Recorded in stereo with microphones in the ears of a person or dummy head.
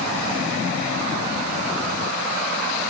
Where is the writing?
I don't hear writing.